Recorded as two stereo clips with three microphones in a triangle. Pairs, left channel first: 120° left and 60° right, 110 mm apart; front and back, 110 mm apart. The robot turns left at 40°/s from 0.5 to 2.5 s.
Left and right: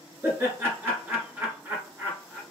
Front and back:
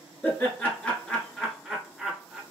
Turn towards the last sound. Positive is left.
turn(degrees=-120)